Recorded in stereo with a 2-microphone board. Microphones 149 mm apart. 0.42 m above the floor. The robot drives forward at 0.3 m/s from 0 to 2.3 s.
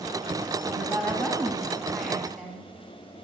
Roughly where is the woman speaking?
Centre.